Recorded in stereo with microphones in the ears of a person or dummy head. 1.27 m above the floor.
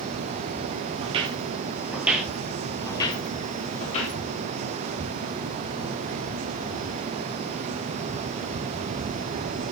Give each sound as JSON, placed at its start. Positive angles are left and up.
{"t": 1.0, "sound": "footsteps", "side_deg": -30, "distance_m": 1.5}